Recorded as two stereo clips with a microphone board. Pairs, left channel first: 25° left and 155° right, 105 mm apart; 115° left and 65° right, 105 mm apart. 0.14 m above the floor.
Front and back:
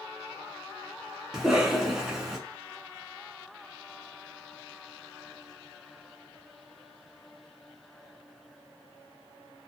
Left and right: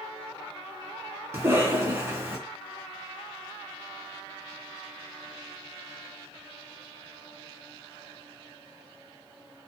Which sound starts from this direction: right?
A cough, at 1.3 s.